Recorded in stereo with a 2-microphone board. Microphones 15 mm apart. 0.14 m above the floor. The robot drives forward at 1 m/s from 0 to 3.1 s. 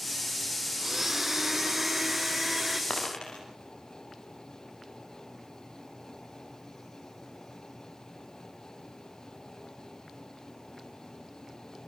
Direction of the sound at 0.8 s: 25° right (ahead or behind).